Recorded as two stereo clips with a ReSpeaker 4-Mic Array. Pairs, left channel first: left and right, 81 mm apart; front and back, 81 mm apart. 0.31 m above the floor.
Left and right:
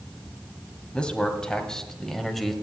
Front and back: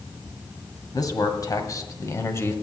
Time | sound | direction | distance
0.9 | a man speaking | 15° left | 1.8 m